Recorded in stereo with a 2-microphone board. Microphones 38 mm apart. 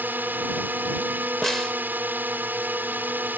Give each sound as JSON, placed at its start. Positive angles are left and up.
{"t": 0.0, "sound": "a drone", "side_deg": -60}
{"t": 1.4, "sound": "a snare drum", "side_deg": 10}